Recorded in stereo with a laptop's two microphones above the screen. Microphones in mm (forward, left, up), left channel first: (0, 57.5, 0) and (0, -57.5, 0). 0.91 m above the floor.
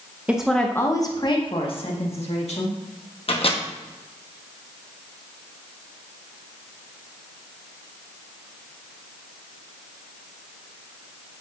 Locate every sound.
0.3 s a woman speaking: 10° right (ahead or behind), 0.7 m; by 2.8 s 70° left (ahead or behind), 1.9 m
3.3 s a microwave: 55° left (ahead or behind), 0.9 m